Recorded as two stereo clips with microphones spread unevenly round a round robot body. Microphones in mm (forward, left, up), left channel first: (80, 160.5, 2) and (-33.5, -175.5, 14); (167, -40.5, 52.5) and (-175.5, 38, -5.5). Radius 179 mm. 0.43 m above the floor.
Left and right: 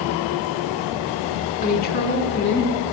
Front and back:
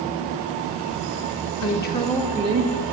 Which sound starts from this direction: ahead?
A woman speaking, at 1.6 s.